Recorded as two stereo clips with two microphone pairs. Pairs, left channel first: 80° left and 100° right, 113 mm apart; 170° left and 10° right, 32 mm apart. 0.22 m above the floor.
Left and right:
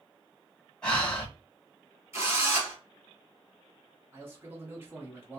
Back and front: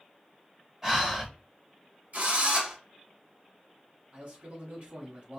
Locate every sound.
0.8 s breathing: 10° left, 1.7 m
2.1 s a drill: 35° right, 2.5 m
4.1 s a man speaking: 35° right, 1.6 m